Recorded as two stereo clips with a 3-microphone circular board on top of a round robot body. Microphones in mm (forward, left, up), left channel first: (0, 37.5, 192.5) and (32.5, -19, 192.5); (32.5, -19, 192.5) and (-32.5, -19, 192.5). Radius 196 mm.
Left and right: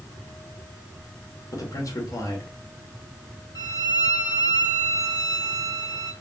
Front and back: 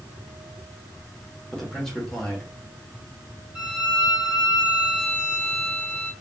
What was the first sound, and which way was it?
A man speaking, 85° left.